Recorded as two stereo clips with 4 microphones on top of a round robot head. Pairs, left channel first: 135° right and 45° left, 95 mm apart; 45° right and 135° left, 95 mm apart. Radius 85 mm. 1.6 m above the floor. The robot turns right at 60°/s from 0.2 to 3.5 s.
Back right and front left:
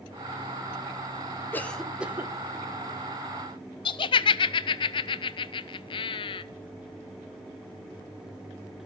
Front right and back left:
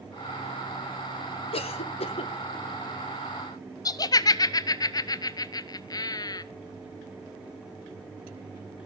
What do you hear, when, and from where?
1.5 s a cough: 65° right, 1.6 m; by 2.3 s 15° right, 1.6 m
3.9 s laughter: 95° right, 0.5 m